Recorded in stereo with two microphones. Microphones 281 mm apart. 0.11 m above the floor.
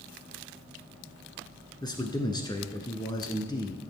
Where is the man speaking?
15° left (ahead or behind), 1.0 m.